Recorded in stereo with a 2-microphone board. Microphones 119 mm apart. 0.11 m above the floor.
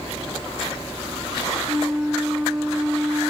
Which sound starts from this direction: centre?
A flute, at 1.7 s.